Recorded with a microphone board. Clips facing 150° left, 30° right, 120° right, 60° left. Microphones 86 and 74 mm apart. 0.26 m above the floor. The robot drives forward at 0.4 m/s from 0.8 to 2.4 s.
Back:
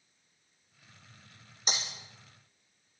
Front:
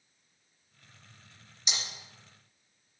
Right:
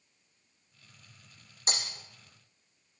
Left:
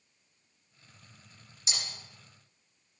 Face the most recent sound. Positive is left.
turn(degrees=-165)